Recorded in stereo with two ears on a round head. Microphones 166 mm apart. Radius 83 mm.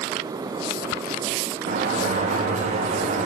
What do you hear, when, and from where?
1.7 s a sliding door: 40° right (ahead or behind), 0.9 m